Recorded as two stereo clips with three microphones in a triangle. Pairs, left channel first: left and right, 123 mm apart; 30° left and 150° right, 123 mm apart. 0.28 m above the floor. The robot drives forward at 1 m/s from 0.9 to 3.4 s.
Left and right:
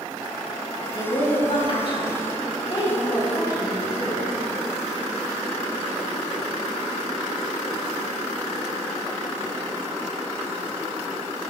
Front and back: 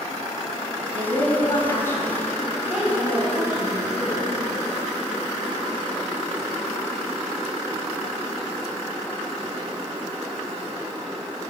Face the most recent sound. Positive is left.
turn(degrees=145)